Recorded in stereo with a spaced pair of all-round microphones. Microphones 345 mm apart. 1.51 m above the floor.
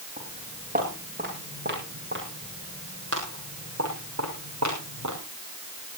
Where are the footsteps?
20° right (ahead or behind), 8.5 m; by 5.2 s 55° right (ahead or behind), 6.5 m.